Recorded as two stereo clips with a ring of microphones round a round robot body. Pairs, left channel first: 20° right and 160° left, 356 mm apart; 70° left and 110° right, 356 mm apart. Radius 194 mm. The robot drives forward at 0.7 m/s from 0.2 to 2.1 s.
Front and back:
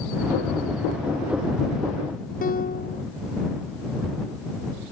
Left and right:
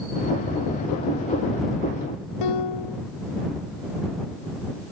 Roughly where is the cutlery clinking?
I don't hear cutlery clinking.